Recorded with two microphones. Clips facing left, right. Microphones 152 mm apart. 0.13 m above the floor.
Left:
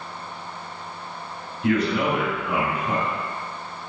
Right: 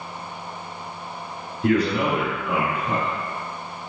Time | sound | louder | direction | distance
1.6 | a man speaking | right 1 dB | 40° right (ahead or behind) | 1.5 m